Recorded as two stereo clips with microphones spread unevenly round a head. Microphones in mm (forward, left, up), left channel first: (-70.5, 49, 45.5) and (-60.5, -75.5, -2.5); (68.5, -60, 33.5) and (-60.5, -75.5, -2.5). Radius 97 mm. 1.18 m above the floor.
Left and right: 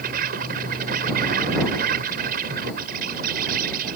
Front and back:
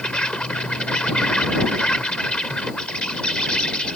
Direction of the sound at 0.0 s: 75° right.